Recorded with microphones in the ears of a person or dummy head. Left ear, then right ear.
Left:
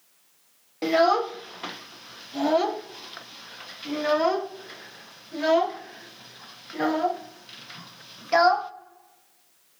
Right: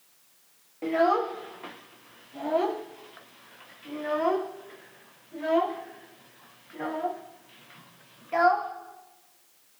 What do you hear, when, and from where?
0.8 s a child speaking: 80° left, 0.6 m